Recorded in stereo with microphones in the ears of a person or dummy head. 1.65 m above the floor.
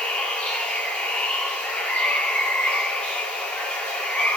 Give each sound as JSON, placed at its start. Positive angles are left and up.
{"t": 0.0, "sound": "running water", "side_deg": 5, "distance_m": 0.8}